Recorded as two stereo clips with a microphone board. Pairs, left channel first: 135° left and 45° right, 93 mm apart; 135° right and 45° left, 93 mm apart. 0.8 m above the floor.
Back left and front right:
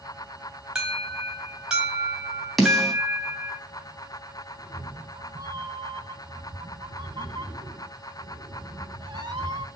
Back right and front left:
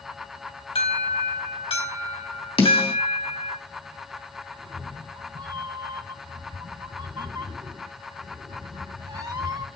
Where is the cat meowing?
5° right, 2 m.